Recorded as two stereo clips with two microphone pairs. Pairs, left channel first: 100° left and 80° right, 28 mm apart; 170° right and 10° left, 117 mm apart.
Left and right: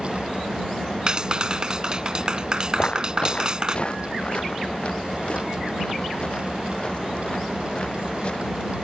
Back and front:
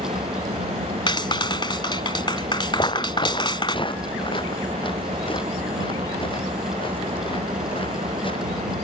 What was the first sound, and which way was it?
An engine running, 15° left.